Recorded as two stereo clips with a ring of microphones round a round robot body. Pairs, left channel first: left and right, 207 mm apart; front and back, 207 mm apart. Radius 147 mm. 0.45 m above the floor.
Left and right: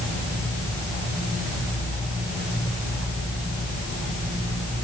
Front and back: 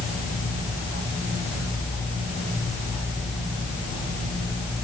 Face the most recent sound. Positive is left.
No sound to turn to.